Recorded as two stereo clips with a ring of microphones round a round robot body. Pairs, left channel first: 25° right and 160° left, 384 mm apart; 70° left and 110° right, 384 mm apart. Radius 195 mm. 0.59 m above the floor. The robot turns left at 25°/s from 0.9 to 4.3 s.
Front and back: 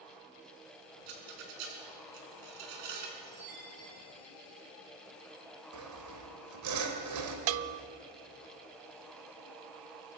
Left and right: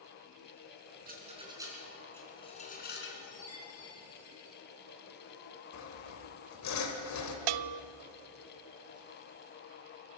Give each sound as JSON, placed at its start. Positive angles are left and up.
{"t": 1.1, "sound": "a rattle", "azimuth_deg": 180, "distance_m": 4.0}
{"t": 3.2, "sound": "a chime", "azimuth_deg": 100, "distance_m": 8.5}
{"t": 5.7, "sound": "sawing", "azimuth_deg": 115, "distance_m": 2.5}
{"t": 7.5, "sound": "a bell", "azimuth_deg": -145, "distance_m": 0.6}